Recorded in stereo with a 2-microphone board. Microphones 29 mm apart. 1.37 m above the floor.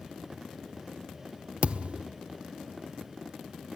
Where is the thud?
45° right (ahead or behind), 1.1 m.